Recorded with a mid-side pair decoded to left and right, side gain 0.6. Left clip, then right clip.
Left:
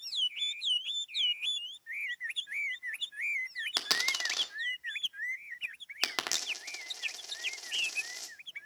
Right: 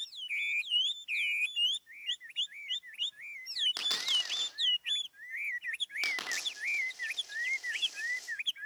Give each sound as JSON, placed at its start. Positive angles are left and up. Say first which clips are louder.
{"t": 3.8, "sound": "a dropped coin", "louder": "even", "azimuth_deg": 45, "distance_m": 1.5}